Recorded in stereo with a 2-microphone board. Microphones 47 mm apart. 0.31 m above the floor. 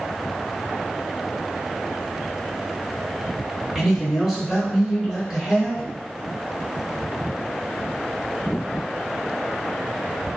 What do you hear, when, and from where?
3.8 s a man speaking: 10° right (ahead or behind), 1.0 m